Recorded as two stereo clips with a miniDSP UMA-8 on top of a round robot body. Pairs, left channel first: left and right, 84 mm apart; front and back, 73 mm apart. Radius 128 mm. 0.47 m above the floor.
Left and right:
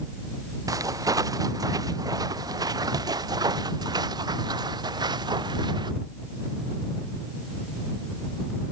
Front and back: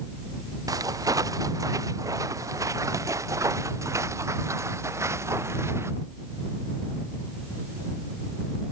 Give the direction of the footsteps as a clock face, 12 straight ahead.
5 o'clock.